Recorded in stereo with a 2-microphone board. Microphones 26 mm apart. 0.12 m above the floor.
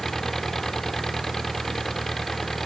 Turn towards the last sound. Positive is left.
turn(degrees=15)  # may be behind; listen again after turning